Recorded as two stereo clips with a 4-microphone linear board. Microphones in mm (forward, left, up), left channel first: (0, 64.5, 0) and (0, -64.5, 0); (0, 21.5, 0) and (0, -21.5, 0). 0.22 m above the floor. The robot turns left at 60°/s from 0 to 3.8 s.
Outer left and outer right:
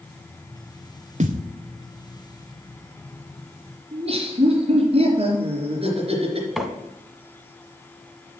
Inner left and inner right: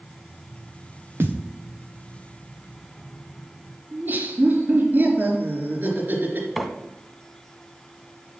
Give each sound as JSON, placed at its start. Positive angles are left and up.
{"t": 1.2, "sound": "a thud", "side_deg": -60, "distance_m": 1.3}
{"t": 3.9, "sound": "laughter", "side_deg": -45, "distance_m": 3.5}
{"t": 6.6, "sound": "a microwave", "side_deg": 0, "distance_m": 1.2}